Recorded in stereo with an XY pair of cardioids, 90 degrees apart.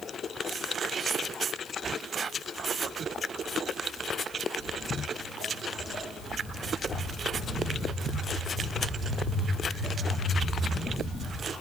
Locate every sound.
4.6 s footsteps: 65° left, 3.5 m; by 11.5 s 75° left, 8 m